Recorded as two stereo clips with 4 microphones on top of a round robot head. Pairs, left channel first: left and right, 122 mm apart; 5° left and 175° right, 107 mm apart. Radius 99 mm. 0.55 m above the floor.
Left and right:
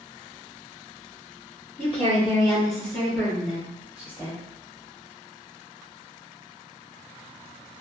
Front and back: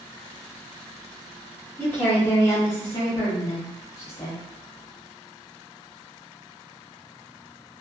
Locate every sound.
1.8 s a woman speaking: 70° left, 1.5 m; by 4.4 s 30° right, 1.3 m